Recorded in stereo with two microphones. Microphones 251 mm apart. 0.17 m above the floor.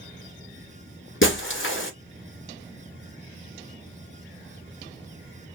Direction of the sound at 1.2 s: 55° left (ahead or behind).